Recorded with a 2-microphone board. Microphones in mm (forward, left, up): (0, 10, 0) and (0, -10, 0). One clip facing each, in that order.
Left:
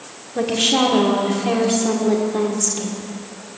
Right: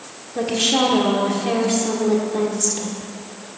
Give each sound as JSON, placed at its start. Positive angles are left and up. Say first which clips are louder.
{"t": 0.3, "sound": "a woman speaking", "louder": "left 1 dB", "side_deg": 0, "distance_m": 1.5}